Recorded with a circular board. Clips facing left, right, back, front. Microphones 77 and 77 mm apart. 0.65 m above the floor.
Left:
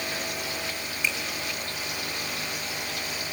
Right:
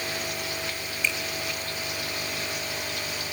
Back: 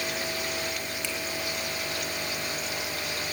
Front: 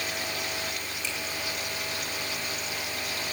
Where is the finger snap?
165° left, 3.5 m.